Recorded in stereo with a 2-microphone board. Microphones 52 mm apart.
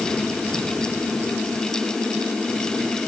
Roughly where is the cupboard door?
I don't hear a cupboard door.